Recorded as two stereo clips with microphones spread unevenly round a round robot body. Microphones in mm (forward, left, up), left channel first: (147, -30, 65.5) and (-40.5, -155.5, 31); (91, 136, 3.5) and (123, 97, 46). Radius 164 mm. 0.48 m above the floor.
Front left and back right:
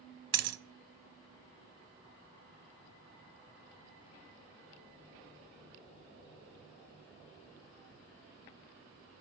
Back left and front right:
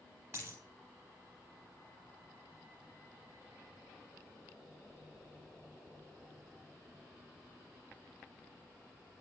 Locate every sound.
0.3 s a dropped coin: 130° right, 0.7 m